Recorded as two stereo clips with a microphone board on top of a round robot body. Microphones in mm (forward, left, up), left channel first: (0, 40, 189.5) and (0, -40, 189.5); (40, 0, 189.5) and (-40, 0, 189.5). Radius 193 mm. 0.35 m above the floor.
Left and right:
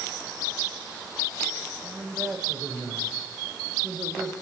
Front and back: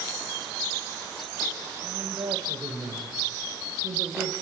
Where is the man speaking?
165° right, 3 m.